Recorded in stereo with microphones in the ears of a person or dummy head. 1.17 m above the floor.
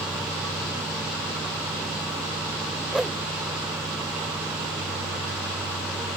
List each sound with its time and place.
2.9 s a whoosh: centre (ahead or behind)